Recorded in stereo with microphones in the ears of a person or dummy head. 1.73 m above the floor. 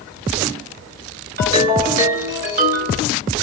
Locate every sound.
1.4 s a ringtone: 50° right (ahead or behind), 2.5 m